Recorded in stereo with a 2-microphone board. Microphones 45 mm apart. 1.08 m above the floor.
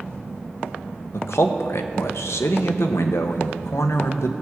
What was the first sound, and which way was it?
A man speaking, 70° left (ahead or behind).